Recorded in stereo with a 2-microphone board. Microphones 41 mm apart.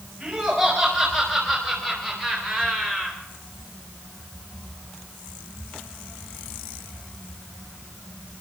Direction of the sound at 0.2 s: 30° right (ahead or behind).